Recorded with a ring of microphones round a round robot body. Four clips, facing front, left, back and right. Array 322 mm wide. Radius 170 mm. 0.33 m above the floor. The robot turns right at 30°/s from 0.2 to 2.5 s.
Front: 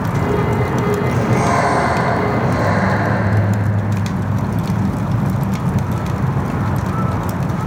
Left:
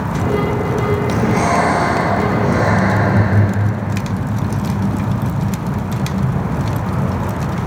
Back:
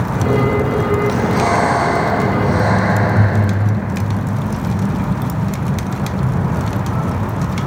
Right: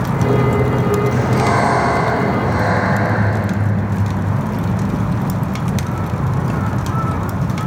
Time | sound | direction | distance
1.1 | breathing | 55° left | 7.5 m